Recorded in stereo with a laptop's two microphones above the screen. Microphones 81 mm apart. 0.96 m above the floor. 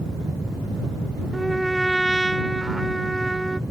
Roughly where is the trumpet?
Centre.